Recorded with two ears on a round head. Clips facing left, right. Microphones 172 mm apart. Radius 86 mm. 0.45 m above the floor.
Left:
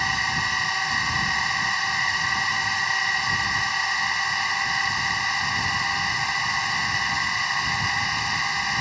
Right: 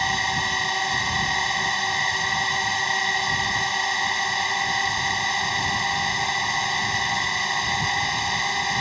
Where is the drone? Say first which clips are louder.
Right 3 dB; 25° right (ahead or behind).